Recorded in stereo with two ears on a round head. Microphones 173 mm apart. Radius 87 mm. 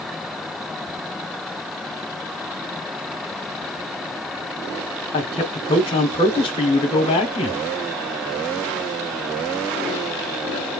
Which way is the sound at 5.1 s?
30° left (ahead or behind).